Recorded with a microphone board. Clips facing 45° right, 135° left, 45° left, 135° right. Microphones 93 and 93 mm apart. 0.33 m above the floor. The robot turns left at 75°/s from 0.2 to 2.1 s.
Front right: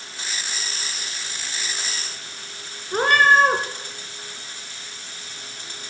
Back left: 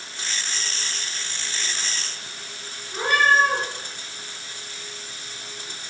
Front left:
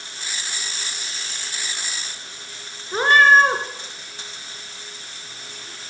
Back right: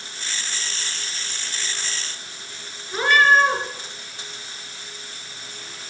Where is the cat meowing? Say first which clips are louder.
Front right 3 dB, front left 3 dB; 15° right, 1.8 m.